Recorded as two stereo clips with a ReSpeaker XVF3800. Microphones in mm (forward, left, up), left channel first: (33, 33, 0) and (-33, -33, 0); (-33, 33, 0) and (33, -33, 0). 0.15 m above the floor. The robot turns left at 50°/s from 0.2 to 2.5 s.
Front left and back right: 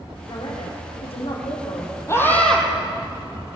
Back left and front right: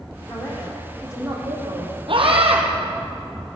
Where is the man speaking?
80° left, 7.5 m; by 2.0 s 5° right, 7.5 m.